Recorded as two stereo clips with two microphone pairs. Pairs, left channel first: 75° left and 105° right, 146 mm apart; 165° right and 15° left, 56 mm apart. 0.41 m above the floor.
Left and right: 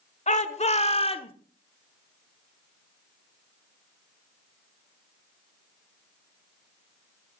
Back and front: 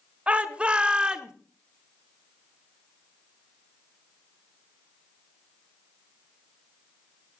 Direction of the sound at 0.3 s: 75° left.